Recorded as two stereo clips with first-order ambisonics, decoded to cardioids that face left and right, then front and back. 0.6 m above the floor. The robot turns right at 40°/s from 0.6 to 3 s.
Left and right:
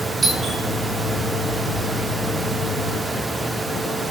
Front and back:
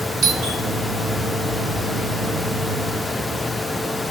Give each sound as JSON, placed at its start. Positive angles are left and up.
{"t": 0.2, "sound": "a doorbell", "azimuth_deg": -160, "distance_m": 1.5}